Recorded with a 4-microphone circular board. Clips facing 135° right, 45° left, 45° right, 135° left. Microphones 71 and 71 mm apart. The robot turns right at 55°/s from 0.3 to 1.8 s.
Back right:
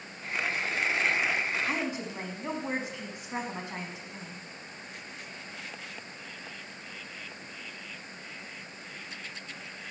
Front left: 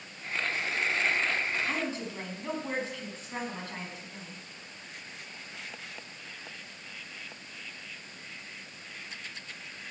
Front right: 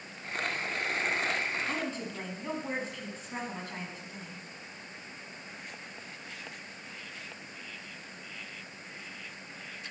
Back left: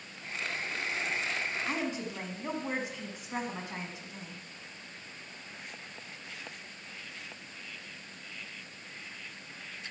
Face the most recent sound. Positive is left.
turn(degrees=-175)